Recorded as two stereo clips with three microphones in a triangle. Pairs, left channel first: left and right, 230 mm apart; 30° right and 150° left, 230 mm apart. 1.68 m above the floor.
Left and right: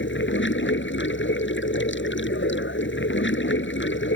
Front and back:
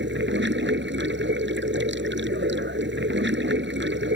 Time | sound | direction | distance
0.0 | running water | 120° left | ?